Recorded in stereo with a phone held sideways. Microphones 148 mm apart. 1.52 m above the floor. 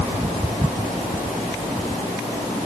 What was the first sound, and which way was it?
Only background noise.